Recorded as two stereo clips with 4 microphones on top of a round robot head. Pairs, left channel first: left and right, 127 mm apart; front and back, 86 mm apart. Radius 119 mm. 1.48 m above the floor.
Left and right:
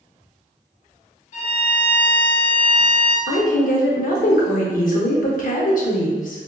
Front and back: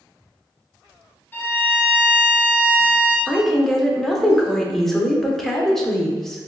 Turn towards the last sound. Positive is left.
turn(degrees=85)